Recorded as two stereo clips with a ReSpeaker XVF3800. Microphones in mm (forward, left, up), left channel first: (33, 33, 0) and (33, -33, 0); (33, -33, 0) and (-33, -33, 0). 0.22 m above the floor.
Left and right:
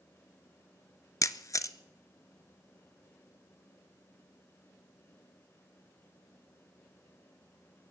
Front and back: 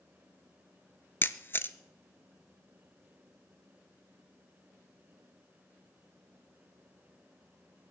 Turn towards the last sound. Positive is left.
turn(degrees=50)